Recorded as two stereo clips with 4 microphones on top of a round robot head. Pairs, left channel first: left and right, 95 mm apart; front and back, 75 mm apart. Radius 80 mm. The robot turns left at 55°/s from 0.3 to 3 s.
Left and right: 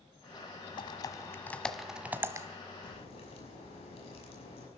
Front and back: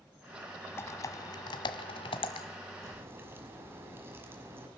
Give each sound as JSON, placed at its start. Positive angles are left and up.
{"t": 0.8, "sound": "typing on a keyboard", "azimuth_deg": 55, "distance_m": 1.3}
{"t": 2.8, "sound": "a crack", "azimuth_deg": 130, "distance_m": 6.0}